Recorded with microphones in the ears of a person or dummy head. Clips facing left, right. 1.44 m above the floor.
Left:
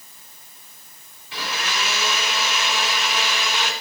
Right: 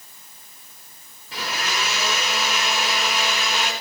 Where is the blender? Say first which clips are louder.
Right 1 dB; 35° right (ahead or behind), 4.5 m.